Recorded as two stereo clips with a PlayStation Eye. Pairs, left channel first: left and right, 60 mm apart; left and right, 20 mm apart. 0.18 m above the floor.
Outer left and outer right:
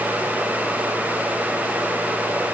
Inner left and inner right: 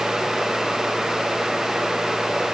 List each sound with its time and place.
Only background noise.